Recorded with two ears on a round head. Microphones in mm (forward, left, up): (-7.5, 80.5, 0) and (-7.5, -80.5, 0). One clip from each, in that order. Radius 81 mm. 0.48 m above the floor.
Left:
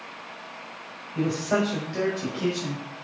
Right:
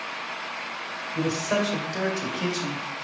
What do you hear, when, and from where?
1.1 s a man speaking: 60° right (ahead or behind), 1.9 m; by 2.8 s 35° right (ahead or behind), 1.7 m